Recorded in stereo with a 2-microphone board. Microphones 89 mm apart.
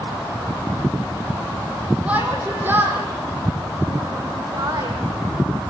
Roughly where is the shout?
Centre.